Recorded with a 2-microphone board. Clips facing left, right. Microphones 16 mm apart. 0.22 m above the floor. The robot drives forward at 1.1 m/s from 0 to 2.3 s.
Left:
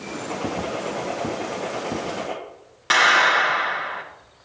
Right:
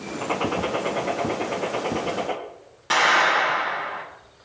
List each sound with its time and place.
0.2 s a gunshot: 40° right (ahead or behind), 1.2 m; by 2.4 s 15° right (ahead or behind), 3 m
2.9 s a clap: 30° left (ahead or behind), 2.5 m